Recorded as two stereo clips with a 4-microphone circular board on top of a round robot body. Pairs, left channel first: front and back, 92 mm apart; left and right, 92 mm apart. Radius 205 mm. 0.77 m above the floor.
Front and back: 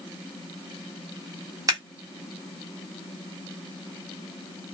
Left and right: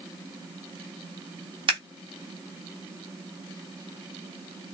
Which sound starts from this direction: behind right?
Scissors, at 1.7 s.